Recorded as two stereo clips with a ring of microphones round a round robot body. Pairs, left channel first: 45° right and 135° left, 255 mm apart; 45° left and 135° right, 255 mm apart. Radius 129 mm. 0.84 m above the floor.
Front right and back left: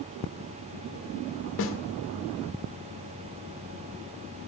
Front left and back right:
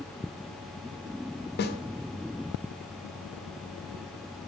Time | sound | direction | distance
1.6 | a snare drum | 5° right | 0.8 m